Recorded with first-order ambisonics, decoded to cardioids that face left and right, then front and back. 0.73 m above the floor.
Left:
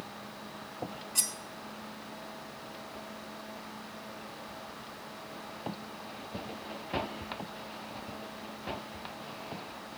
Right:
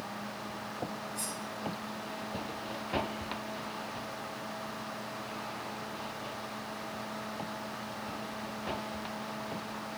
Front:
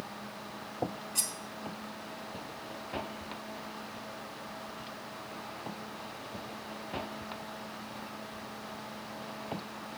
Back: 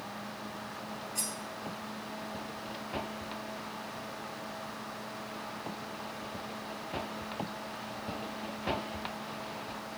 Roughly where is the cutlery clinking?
Ahead left.